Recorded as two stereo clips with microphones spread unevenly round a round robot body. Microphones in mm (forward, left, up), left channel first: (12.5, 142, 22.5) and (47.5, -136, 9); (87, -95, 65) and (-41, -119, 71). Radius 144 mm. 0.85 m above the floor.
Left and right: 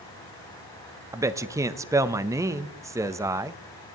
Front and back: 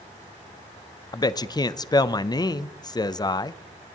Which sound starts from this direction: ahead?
A man speaking, at 1.1 s.